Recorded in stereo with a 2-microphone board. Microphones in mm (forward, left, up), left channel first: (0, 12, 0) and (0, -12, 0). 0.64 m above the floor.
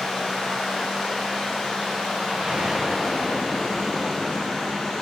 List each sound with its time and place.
0.0 s running water: 65° left (ahead or behind), 2.5 m
2.3 s an explosion: 90° right, 1.6 m